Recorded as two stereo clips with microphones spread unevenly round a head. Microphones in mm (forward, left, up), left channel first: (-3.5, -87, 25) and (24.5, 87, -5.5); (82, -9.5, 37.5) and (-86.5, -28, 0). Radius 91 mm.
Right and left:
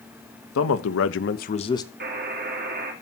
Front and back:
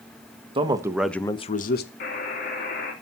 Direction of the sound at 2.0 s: 50° left.